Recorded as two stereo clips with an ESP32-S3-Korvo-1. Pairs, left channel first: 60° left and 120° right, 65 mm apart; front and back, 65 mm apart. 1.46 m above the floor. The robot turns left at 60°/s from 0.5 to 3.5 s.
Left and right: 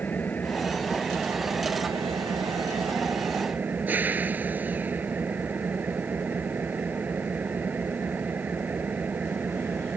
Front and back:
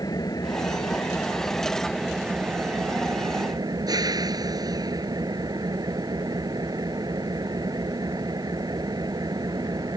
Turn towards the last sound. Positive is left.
turn(degrees=180)